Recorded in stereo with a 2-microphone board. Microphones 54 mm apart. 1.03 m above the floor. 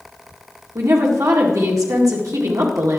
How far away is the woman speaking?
About 1.9 m.